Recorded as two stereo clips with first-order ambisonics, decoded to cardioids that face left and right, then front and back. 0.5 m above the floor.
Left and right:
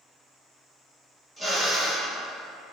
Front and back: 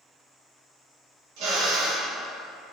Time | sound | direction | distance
1.4 | a drill | 170° left | 1.2 m